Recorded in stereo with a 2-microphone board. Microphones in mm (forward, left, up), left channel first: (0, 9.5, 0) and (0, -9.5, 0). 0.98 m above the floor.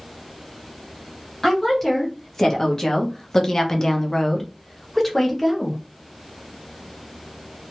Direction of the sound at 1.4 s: 25° left (ahead or behind).